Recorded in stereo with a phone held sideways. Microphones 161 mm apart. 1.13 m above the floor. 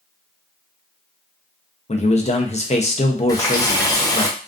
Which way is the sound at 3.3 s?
20° left (ahead or behind).